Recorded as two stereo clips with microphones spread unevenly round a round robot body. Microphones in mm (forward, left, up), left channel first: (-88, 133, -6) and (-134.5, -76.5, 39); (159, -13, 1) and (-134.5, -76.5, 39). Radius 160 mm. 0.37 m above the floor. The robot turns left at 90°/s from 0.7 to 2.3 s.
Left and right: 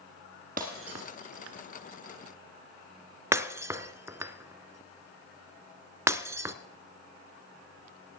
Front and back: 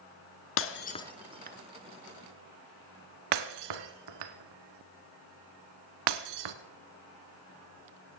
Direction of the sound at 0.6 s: 35° right.